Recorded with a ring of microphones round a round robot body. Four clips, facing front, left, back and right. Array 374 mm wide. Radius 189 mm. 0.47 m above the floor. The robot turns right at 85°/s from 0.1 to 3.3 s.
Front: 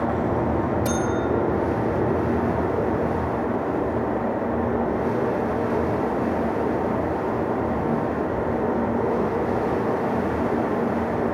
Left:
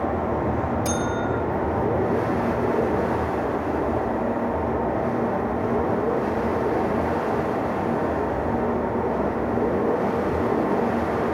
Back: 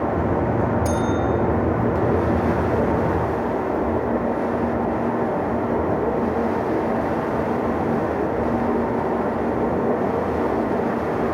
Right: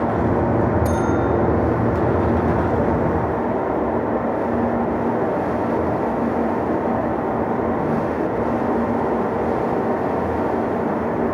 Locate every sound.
0.8 s a bell: 40° left, 5.5 m; by 1.3 s 75° left, 5.5 m